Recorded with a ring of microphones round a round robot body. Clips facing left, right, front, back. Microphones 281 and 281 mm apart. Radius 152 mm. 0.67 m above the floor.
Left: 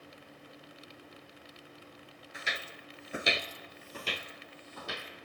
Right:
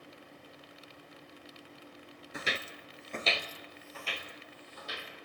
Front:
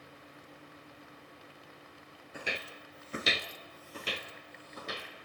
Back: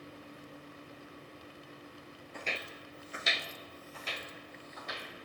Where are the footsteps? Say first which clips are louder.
Right 5 dB, front 2 dB; 80° right, 0.8 m; by 5.1 s 55° left, 2.0 m.